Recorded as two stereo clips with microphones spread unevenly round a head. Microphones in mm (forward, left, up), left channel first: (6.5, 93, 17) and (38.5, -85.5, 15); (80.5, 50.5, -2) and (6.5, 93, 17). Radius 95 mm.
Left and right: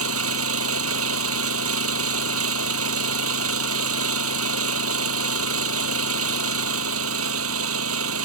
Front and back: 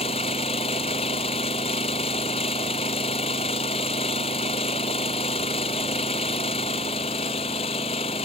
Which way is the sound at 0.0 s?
80° right.